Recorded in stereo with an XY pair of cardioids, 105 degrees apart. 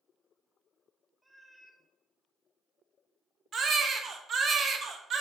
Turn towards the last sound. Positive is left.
turn(degrees=-50)